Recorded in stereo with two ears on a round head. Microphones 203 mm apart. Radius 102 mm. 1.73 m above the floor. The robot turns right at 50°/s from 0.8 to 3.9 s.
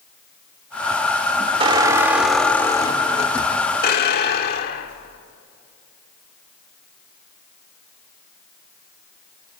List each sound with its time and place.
1.6 s a squeak: 35° right, 1.8 m; by 5.2 s 80° left, 1.8 m